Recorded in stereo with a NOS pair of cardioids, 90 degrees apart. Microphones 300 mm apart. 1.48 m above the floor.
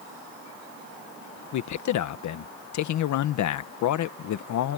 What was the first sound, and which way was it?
A man speaking, 70° left.